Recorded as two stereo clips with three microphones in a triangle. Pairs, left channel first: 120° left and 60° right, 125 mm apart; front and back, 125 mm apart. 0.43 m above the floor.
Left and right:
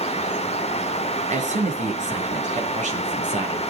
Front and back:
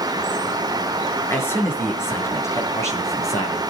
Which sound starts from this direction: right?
A man speaking, at 1.3 s.